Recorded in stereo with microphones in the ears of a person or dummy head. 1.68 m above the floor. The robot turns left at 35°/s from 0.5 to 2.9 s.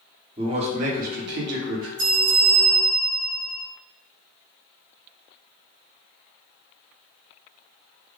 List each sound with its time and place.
0.4 s a man speaking: 30° right, 0.7 m; by 1.9 s 80° right, 0.7 m
2.0 s a bell: 20° right, 1.0 m; by 3.7 s 50° right, 1.0 m